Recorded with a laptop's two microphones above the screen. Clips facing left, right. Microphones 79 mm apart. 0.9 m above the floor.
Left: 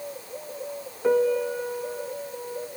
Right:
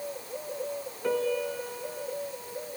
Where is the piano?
20° left (ahead or behind), 0.8 m.